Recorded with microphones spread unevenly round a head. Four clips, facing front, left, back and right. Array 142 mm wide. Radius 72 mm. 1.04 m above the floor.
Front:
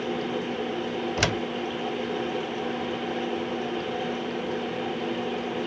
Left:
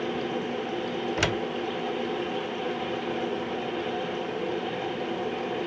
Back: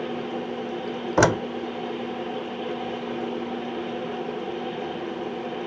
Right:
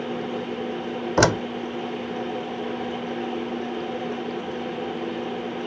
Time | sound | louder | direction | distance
1.2 | a door slam | right 11 dB, back 11 dB | 140° right | ?